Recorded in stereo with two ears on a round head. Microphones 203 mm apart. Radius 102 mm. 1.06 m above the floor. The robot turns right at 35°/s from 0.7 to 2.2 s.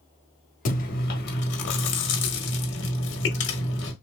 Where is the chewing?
45° left, 1.1 m; by 3.9 s 95° left, 1.1 m.